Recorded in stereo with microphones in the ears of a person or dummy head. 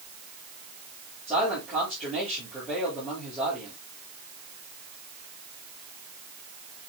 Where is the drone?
I don't hear a drone.